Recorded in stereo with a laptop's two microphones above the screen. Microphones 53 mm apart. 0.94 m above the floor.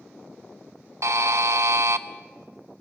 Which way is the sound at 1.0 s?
70° right (ahead or behind).